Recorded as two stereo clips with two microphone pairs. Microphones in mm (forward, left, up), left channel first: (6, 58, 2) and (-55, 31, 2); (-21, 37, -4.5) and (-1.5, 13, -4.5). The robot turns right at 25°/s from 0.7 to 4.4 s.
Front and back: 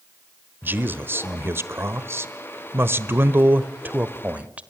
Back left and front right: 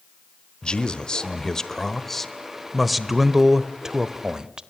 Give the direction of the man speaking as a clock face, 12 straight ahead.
6 o'clock.